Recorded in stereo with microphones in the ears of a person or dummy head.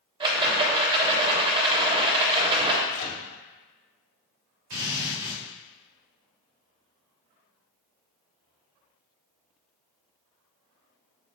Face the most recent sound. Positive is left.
turn(degrees=-65)  # may be behind; listen again after turning